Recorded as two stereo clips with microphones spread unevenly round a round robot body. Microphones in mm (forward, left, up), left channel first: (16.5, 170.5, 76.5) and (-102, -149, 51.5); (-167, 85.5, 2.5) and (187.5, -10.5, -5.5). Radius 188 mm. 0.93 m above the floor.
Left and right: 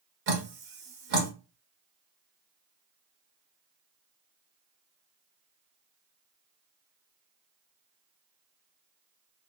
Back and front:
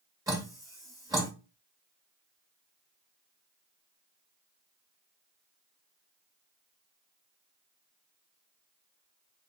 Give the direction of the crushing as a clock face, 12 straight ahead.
No crushing in this recording.